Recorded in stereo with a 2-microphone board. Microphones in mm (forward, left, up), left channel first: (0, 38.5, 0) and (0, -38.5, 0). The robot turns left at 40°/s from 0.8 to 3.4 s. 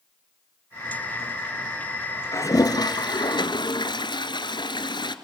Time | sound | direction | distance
2.3 | a toilet flushing | 135° left | 1.5 m